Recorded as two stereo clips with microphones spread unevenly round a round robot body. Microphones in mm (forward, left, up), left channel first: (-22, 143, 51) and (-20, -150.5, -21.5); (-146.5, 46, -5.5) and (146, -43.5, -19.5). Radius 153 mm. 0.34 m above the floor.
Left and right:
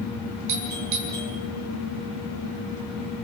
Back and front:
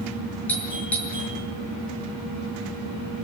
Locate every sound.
0.5 s a doorbell: 110° right, 7.5 m